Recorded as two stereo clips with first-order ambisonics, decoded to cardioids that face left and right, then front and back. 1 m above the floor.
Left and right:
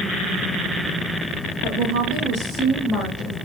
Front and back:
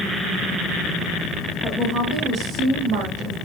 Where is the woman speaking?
90° right, 1.4 m; by 3.4 s 160° left, 1.2 m.